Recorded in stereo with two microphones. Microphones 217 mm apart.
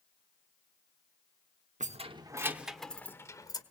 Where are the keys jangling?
35° right (ahead or behind), 0.9 m; by 3.6 s 20° left (ahead or behind), 1.5 m.